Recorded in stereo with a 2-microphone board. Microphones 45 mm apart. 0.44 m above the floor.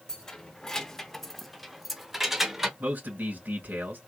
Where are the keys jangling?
15° left (ahead or behind), 0.8 m; by 2.7 s 10° right (ahead or behind), 0.9 m.